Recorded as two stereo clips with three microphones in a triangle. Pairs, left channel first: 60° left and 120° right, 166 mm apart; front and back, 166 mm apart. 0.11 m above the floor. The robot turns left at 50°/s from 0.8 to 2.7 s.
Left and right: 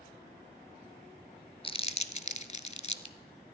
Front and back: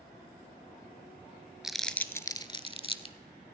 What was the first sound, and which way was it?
Crumpling, 95° left.